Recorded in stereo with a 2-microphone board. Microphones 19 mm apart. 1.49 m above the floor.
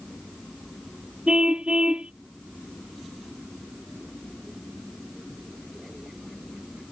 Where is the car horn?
75° right (ahead or behind).